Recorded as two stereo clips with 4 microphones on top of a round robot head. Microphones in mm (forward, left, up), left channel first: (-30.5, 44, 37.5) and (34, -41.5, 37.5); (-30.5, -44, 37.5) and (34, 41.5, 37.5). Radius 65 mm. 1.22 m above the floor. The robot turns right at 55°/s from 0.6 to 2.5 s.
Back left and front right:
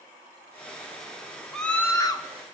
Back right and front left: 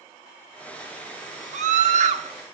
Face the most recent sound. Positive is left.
turn(degrees=90)